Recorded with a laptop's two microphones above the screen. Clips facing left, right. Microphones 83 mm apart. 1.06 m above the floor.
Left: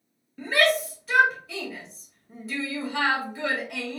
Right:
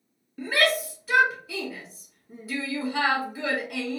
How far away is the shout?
About 1.8 m.